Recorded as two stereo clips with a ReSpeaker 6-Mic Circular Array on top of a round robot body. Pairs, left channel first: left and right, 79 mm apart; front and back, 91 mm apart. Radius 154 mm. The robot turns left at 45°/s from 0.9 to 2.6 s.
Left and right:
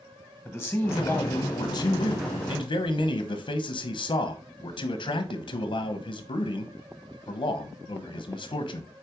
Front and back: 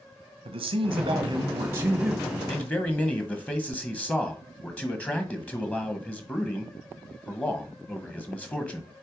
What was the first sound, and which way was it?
A man speaking, 150° left.